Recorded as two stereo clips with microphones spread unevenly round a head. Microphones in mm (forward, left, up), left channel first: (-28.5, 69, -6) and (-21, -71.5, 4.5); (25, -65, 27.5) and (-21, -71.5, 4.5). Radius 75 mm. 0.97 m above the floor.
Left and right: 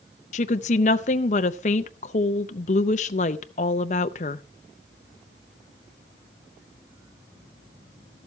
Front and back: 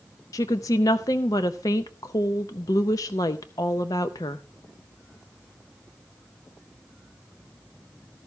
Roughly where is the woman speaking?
Ahead left.